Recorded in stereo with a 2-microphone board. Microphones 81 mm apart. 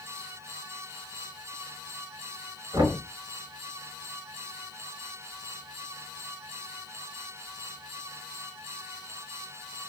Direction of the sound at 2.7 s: 55° right (ahead or behind).